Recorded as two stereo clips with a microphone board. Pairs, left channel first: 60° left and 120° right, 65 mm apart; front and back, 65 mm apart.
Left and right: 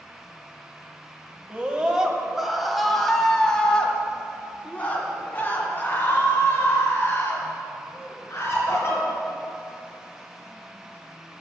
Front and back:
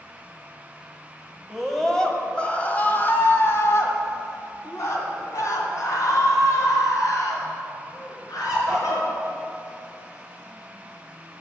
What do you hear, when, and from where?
1.5 s a scream: 90° right, 1.4 m; by 9.1 s 10° left, 4 m